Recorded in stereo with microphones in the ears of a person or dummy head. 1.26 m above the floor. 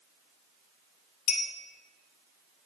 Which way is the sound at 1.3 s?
45° left (ahead or behind).